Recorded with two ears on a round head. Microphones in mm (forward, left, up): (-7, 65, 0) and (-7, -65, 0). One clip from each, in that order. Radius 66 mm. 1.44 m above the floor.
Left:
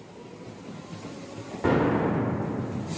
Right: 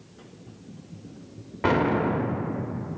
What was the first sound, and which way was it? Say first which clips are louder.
An explosion: right 1 dB; 45° right (ahead or behind).